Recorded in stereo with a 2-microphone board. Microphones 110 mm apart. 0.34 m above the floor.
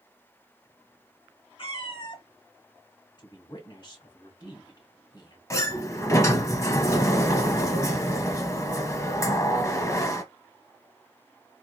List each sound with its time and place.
1.6 s a cat meowing: 50° left (ahead or behind), 0.9 m
3.2 s a woman speaking: 45° left (ahead or behind), 1.9 m
5.5 s a sliding door: 30° left (ahead or behind), 0.7 m